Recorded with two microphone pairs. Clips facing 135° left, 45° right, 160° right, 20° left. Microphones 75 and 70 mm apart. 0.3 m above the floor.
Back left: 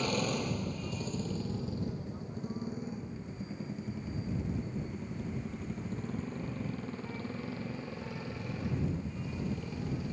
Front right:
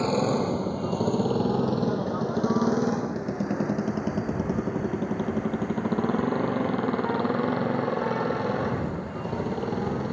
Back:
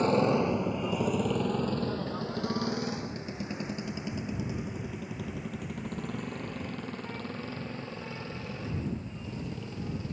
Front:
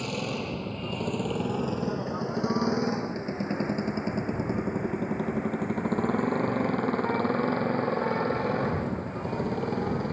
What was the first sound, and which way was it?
A motorcycle, 105° right.